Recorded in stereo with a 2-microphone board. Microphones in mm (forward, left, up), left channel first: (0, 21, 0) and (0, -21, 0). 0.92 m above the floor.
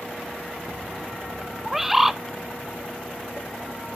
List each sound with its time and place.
1.6 s a bird: 5° right (ahead or behind), 0.7 m